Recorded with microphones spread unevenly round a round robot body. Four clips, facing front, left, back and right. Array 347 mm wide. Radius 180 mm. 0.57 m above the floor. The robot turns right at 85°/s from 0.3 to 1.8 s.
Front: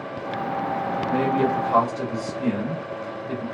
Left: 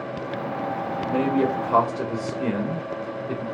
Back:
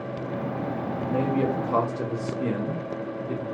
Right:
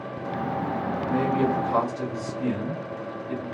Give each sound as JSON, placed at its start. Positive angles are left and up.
{"t": 1.0, "sound": "a man speaking", "azimuth_deg": 25, "distance_m": 1.3}